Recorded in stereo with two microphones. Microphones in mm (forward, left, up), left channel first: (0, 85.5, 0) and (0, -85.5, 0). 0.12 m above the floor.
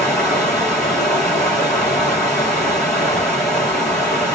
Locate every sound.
0.0 s running water: 5° left (ahead or behind), 2 m